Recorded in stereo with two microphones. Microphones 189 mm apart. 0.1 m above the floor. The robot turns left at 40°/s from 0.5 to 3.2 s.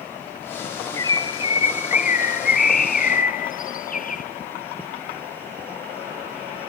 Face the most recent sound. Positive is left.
turn(degrees=70)